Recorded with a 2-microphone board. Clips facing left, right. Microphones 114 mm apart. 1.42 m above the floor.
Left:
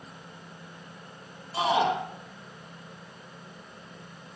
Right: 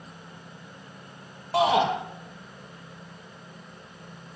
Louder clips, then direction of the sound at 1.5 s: Right 3 dB; 80° right.